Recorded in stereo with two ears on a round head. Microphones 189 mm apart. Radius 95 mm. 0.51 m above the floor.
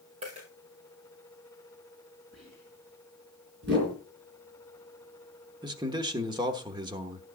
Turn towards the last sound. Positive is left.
turn(degrees=-20)  # may be behind; listen again after turning